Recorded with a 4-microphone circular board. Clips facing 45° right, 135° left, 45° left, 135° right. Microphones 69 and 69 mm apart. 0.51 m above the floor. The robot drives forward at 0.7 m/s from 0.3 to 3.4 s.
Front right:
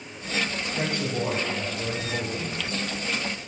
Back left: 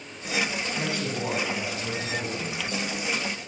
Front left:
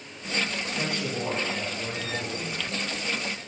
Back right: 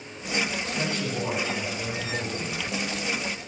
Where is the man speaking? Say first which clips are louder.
Front right 4 dB, back right 1 dB; 30° right, 2.5 m; by 2.6 s 55° right, 1.9 m.